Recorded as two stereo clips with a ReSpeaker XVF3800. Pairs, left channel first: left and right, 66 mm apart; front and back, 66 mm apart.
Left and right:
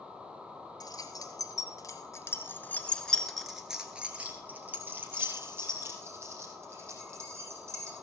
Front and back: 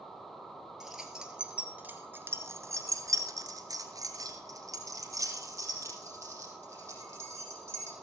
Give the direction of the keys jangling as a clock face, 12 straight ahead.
9 o'clock.